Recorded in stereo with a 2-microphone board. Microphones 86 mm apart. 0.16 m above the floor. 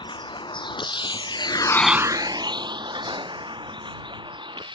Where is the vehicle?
75° left (ahead or behind); by 4.8 s 70° right (ahead or behind).